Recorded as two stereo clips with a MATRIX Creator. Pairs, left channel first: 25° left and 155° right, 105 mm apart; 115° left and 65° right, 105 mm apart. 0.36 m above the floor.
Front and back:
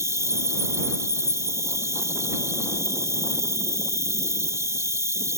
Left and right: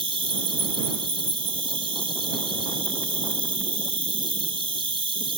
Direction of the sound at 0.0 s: 95° right.